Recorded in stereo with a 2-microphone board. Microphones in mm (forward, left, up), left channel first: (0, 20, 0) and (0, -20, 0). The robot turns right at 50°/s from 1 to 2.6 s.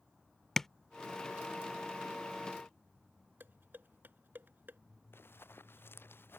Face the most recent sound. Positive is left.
turn(degrees=75)  # may be behind; listen again after turning